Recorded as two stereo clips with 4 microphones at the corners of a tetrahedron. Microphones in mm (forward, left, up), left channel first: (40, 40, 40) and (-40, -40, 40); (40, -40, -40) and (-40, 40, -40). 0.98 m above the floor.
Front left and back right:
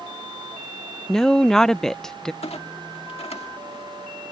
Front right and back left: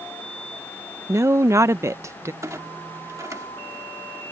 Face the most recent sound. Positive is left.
turn(degrees=75)